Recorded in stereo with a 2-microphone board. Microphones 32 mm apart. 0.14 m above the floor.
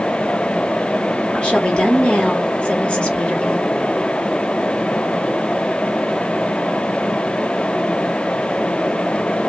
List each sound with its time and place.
1.3 s a woman speaking: 35° left (ahead or behind), 2 m